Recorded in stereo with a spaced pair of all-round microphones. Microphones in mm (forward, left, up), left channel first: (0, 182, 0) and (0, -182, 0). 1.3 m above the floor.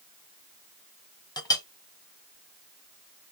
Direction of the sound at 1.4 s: 10° left (ahead or behind).